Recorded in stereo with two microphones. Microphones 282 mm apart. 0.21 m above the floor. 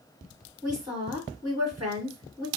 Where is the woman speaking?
15° right (ahead or behind), 2 m.